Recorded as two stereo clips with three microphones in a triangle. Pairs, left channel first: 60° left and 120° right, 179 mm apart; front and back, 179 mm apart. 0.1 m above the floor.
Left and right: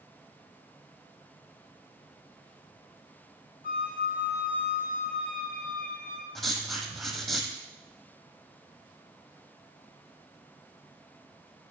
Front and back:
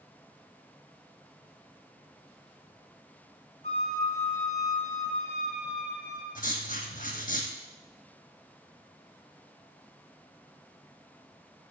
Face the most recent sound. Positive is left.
turn(degrees=-30)